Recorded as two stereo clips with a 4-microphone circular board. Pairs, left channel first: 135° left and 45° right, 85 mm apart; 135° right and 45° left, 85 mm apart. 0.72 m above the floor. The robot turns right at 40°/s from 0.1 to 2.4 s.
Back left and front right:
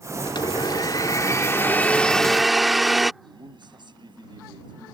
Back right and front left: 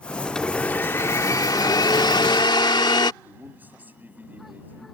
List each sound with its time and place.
0.2 s a blender: 140° left; by 3.1 s 135° right
3.2 s a man speaking: 20° right